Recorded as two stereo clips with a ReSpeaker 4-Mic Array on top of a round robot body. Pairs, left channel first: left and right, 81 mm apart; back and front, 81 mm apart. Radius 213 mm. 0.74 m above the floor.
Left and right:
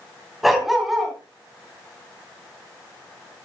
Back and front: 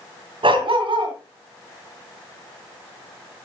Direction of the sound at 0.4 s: Straight ahead.